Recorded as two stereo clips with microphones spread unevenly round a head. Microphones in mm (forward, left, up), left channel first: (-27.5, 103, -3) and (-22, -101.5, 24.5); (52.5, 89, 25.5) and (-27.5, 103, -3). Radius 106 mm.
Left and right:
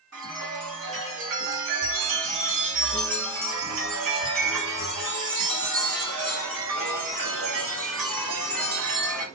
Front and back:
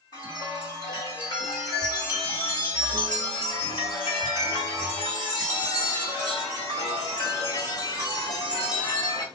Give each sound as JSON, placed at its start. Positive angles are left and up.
{"t": 0.1, "sound": "a chime", "azimuth_deg": -75, "distance_m": 1.5}